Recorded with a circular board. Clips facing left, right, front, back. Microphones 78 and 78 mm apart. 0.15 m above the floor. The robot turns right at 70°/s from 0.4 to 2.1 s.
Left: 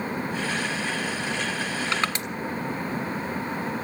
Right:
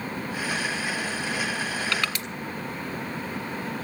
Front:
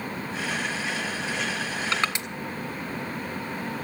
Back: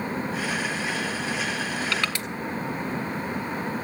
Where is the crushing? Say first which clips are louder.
Left 2 dB, front 1 dB; 35° left, 1.6 m; by 2.3 s 50° left, 1.6 m.